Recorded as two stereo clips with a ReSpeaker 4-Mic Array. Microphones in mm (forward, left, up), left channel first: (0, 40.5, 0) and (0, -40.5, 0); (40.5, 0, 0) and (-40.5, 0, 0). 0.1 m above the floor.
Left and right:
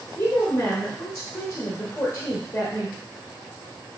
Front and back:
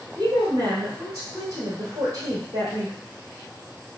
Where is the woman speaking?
145° left, 2 m.